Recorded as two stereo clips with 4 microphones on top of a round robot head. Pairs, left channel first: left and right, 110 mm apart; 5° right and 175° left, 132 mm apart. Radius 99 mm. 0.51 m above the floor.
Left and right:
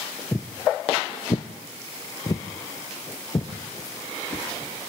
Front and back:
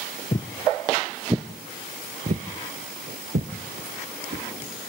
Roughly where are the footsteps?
Ahead.